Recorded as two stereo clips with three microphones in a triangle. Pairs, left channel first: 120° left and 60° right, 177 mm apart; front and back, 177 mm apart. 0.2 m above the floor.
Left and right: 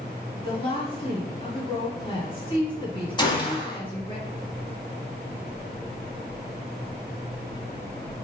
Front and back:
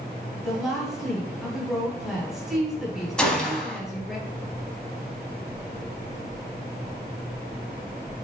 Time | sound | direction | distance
0.4 | a woman speaking | 95° left | 1.4 m
3.2 | a gunshot | 80° left | 0.8 m